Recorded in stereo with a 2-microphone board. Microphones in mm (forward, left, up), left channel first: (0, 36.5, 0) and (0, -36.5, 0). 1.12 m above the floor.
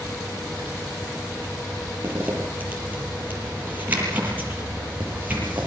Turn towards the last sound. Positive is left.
turn(degrees=-25)  # may be behind; listen again after turning